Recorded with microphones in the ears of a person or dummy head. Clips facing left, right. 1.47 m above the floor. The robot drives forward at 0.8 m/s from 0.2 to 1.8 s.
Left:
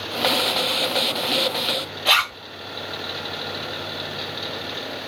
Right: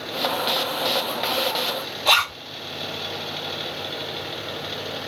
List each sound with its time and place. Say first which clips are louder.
2.0 s a zipper: right 3 dB; 10° left (ahead or behind), 2 m